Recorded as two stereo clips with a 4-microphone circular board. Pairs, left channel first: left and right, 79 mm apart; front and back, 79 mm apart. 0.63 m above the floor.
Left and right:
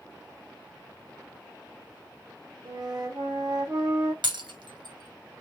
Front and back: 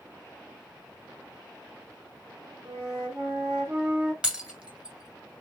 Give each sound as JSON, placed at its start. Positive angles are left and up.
{"t": 2.6, "sound": "a flute", "azimuth_deg": -125, "distance_m": 3.5}
{"t": 4.2, "sound": "breaking glass", "azimuth_deg": -100, "distance_m": 1.3}